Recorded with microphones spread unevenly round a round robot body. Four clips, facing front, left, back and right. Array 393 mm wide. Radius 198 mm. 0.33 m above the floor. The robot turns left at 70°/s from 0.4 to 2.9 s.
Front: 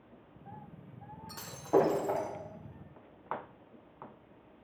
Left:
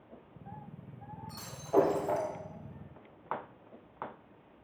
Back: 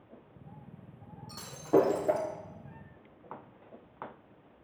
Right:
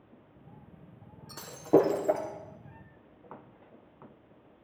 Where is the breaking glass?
75° right, 4.5 m; by 2.3 s 145° right, 4.5 m.